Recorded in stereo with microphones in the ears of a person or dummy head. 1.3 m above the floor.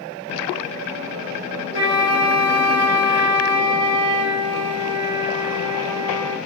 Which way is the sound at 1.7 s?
35° right (ahead or behind).